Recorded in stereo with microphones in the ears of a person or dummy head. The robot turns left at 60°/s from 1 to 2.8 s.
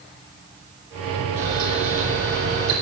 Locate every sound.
1.4 s a camera shutter: 60° right, 7.5 m; by 2.7 s 140° right, 7.5 m